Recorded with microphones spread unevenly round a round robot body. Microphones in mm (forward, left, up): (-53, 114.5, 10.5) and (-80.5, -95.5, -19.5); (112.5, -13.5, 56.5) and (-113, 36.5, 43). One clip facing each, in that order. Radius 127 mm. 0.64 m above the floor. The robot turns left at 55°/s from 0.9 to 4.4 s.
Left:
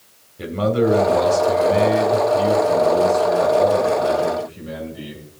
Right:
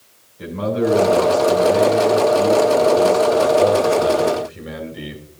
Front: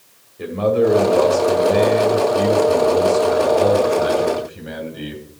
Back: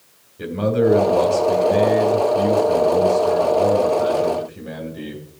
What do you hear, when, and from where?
0.4 s a man speaking: 95° left, 2 m; by 5.2 s 95° right, 2 m